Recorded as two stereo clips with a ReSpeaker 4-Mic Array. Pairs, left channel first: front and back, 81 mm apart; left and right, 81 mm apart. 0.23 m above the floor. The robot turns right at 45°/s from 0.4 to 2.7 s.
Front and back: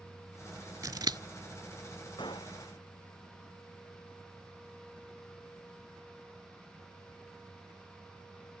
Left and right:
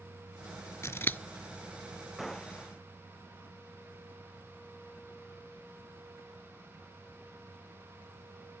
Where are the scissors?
140° left; by 1.2 s 155° left.